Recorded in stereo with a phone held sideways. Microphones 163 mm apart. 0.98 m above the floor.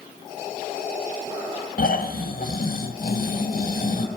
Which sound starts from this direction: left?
Snoring, at 1.8 s.